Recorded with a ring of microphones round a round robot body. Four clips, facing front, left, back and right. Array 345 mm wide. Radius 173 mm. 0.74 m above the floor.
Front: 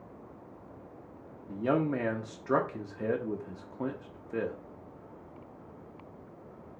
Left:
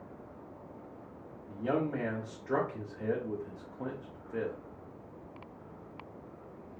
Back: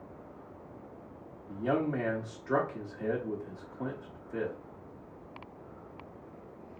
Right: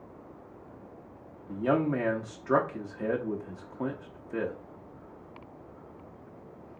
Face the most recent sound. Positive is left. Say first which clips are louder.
# right 5 dB, front 2 dB
turn(degrees=-50)